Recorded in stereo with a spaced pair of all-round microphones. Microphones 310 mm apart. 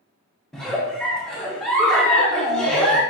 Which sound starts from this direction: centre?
A giggle, at 0.5 s.